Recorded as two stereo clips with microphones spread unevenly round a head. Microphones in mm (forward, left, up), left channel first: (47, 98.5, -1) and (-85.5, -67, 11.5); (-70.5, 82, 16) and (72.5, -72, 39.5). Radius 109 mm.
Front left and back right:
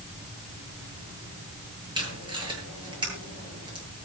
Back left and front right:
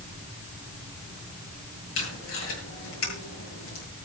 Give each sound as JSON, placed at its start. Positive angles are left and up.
{"t": 1.9, "sound": "tape being pulled", "azimuth_deg": 165, "distance_m": 9.0}